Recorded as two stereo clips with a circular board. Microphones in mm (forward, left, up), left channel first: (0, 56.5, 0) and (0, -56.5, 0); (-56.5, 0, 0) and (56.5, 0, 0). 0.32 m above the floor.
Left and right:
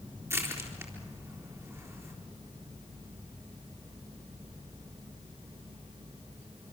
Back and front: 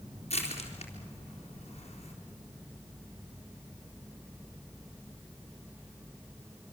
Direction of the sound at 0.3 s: 155° right.